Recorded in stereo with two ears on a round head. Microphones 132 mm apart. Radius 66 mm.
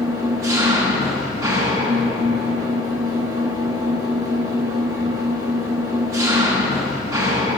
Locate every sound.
0.0 s an engine running: 25° right (ahead or behind), 5 m